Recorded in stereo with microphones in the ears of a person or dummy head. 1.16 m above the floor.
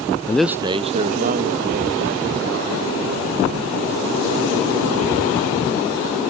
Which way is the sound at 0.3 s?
20° left (ahead or behind).